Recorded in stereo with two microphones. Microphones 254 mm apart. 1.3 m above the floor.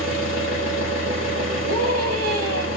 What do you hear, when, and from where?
0.0 s an engine running: 55° right (ahead or behind), 1.6 m
1.7 s a scream: 75° right (ahead or behind), 1.1 m